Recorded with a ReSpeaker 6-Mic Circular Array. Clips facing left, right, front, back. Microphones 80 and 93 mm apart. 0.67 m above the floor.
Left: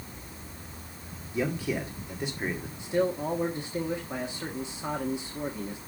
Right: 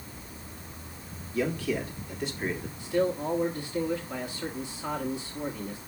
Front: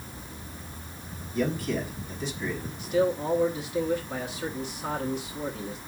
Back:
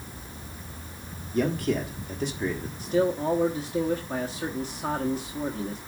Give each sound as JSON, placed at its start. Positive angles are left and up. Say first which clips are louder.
{"t": 1.3, "sound": "a man speaking", "louder": "right 1 dB, back 3 dB", "azimuth_deg": 165, "distance_m": 1.7}
{"t": 2.8, "sound": "a man speaking", "louder": "even, back 1 dB", "azimuth_deg": 150, "distance_m": 1.2}